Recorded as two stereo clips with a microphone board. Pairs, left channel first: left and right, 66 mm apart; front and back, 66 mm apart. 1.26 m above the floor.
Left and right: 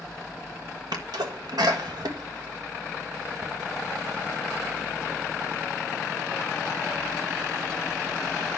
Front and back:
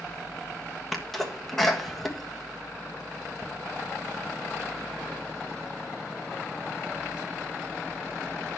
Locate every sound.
0.9 s a sneeze: 85° right, 1.5 m